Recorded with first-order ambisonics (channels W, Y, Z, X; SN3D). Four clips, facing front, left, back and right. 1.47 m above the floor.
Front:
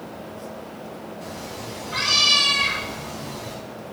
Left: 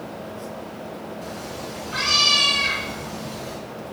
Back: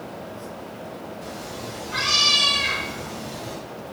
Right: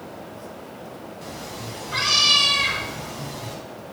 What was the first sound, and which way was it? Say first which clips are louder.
A cat meowing: left 2 dB, even; 70° right.